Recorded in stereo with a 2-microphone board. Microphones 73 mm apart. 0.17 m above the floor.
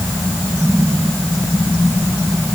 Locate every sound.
Only background noise.